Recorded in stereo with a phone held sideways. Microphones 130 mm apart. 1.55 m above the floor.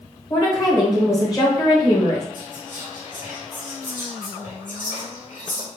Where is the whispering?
75° left (ahead or behind), 2.0 m.